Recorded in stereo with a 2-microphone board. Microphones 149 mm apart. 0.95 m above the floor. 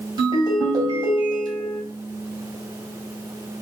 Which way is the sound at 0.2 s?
30° right (ahead or behind).